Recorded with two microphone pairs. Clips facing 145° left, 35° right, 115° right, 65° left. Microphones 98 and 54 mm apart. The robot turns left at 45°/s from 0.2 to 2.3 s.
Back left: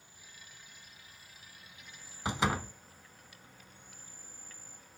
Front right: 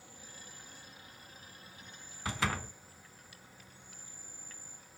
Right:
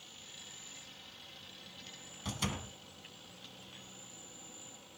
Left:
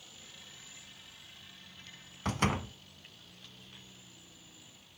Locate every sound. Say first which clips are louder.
0.0 s an insect: front right 5 dB, even; 25° right, 3.5 m; by 5.0 s 120° right, 3.5 m
2.2 s a door slam: back left 4 dB, left 8 dB; 80° left, 0.9 m